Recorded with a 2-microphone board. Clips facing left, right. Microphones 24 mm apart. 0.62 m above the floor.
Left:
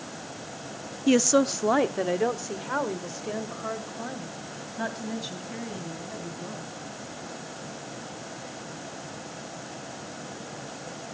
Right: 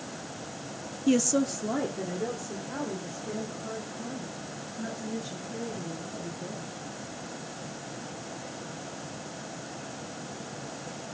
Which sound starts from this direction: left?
A woman speaking, at 1.1 s.